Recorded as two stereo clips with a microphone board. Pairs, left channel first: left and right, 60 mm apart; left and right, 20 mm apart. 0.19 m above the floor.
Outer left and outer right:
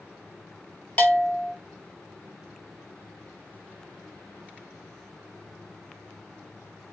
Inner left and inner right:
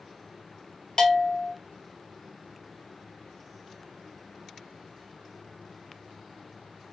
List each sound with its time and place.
1.0 s a bell: 30° left (ahead or behind), 0.6 m